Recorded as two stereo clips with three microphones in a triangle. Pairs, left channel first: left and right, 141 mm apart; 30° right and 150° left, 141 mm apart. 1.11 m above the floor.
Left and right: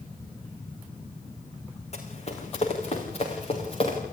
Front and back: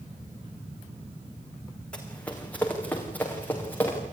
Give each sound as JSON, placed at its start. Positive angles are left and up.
{"t": 1.9, "sound": "running footsteps", "azimuth_deg": 50, "distance_m": 4.0}